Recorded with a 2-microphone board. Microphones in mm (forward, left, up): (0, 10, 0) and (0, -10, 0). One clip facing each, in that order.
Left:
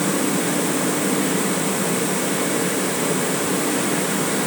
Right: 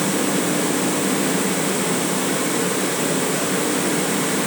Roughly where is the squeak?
No squeak in this recording.